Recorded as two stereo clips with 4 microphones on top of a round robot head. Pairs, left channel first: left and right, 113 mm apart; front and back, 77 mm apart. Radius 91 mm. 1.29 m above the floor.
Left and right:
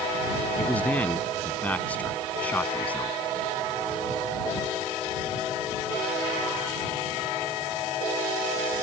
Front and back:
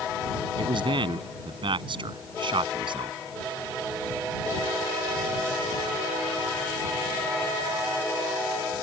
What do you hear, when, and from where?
0.6 s a man speaking: 170° left